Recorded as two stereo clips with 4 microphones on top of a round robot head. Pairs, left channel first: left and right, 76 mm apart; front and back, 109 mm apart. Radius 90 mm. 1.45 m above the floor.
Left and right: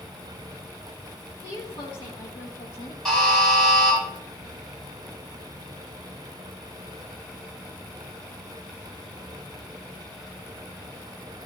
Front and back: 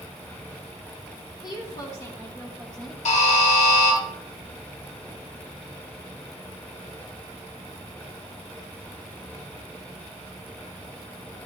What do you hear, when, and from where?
1.4 s a woman speaking: 45° left, 2.5 m; by 3.0 s 90° left, 1.6 m
3.0 s a buzzer: straight ahead, 4.5 m